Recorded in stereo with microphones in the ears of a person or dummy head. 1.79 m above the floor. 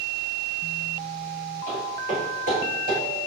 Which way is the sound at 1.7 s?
15° left (ahead or behind).